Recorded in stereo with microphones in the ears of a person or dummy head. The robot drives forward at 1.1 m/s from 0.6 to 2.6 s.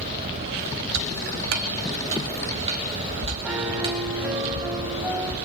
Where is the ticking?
80° right, 1.0 m; by 4.5 s 30° right (ahead or behind), 2.0 m.